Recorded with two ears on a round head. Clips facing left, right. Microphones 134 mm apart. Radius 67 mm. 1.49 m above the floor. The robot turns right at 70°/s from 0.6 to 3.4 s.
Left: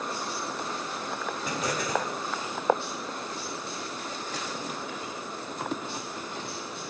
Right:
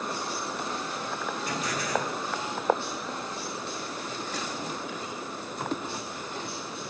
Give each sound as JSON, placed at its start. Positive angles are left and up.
{"t": 1.4, "sound": "an explosion", "azimuth_deg": 75, "distance_m": 3.5}